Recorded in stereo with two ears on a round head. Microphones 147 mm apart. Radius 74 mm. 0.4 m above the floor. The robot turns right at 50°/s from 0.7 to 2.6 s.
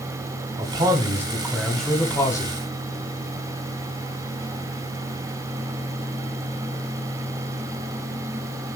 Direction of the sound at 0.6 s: 50° right.